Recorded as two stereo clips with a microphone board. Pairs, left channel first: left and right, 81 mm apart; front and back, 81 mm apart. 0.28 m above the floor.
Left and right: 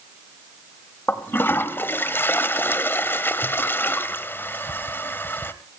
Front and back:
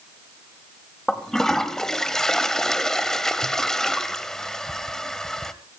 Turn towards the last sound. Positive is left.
turn(degrees=80)